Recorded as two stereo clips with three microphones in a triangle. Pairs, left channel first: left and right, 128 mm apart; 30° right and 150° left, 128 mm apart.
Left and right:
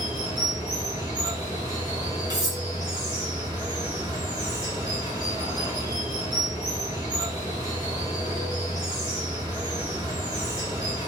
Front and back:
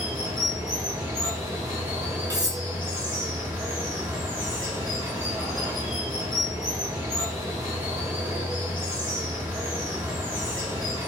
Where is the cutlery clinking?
150° right, 1.6 m.